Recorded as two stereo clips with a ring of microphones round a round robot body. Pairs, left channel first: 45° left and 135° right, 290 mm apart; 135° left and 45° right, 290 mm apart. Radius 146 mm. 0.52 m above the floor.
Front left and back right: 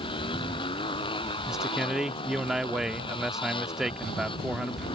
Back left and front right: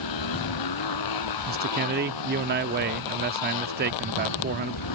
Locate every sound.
0.0 s a motorcycle: 120° left
1.5 s a man speaking: 50° right